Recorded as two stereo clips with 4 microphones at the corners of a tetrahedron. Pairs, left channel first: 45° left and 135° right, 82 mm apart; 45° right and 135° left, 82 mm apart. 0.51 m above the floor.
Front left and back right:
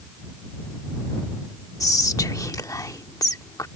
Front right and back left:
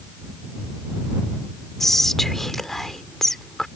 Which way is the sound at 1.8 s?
40° left.